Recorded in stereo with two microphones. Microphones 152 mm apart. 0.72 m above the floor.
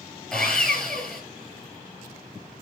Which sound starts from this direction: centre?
Sawing, at 0.3 s.